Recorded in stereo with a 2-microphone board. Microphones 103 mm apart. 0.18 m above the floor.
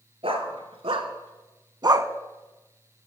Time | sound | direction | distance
0.2 | a dog barking | 65° right (ahead or behind) | 1.2 m